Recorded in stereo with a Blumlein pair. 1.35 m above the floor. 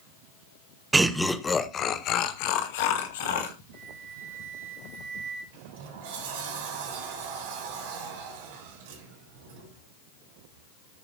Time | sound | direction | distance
0.9 | laughter | 15° right | 1.2 m
3.7 | a flute | 55° right | 4.5 m
5.5 | a sliding door | 55° right | 3 m